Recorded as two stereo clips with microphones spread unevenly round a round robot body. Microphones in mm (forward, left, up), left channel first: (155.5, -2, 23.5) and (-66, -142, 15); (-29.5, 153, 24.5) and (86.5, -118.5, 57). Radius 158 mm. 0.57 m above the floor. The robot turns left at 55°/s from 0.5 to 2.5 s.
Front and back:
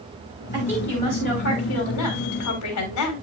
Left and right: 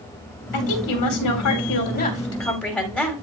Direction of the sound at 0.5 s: 135° left.